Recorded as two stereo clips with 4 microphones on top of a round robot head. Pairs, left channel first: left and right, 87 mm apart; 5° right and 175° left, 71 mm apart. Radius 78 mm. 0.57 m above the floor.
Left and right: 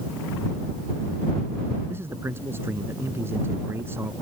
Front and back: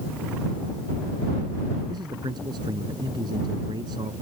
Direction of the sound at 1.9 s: 155° right.